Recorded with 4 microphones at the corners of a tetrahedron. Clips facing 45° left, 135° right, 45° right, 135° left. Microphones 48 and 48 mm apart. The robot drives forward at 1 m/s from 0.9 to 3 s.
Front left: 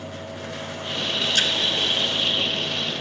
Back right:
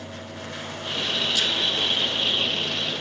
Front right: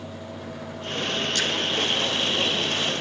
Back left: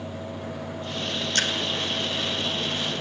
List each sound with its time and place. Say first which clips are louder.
1.4 s a splash: front left 4 dB, back left 3 dB; 90° left, 2 m; by 1.5 s 95° left, 2 m